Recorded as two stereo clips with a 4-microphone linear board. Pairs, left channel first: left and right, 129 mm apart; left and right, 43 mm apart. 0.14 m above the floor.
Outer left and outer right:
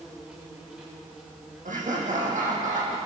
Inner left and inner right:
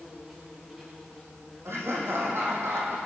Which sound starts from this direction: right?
Laughter, at 1.6 s.